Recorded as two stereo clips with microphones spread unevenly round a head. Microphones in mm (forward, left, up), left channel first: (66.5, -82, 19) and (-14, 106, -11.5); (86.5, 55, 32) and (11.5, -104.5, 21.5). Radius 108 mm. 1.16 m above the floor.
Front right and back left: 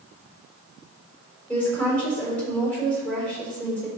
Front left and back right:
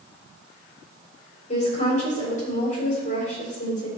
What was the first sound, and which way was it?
A woman speaking, 15° left.